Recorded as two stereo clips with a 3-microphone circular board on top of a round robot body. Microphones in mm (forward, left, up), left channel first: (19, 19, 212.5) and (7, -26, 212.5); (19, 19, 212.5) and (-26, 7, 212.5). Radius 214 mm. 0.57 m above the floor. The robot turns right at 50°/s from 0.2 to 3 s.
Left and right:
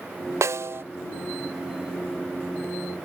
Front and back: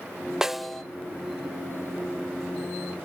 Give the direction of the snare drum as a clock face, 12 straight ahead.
3 o'clock.